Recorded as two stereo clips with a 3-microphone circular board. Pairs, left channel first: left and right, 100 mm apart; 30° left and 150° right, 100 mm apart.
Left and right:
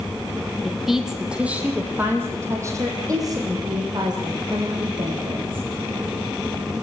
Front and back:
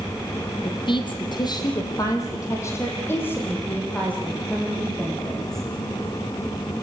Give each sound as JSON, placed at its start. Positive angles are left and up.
{"t": 0.6, "sound": "a woman speaking", "azimuth_deg": 0, "distance_m": 3.5}